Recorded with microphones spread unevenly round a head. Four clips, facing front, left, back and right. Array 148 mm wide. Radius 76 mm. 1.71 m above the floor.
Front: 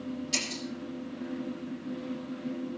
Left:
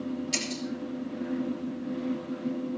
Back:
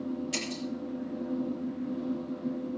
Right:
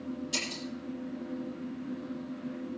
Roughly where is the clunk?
I don't hear a clunk.